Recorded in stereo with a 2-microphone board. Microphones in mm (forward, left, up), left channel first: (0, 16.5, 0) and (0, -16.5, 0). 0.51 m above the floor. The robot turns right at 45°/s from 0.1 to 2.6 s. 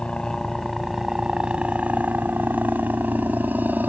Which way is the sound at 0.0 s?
150° left.